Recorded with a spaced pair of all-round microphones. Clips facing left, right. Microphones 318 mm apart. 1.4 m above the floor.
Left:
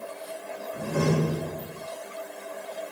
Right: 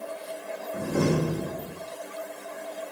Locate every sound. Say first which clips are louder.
0.7 s a door slam: right 1 dB; 55° right (ahead or behind), 4 m